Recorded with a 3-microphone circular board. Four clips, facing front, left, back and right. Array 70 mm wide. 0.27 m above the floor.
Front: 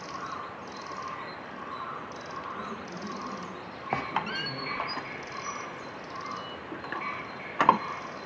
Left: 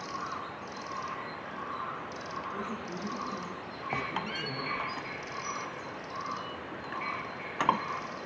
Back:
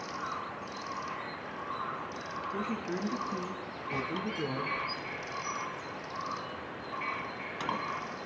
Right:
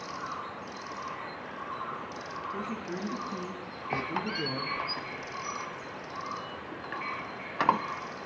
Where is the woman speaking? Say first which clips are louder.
Right 2 dB, back 3 dB; 160° right, 3 m; by 4.8 s 120° right, 3 m.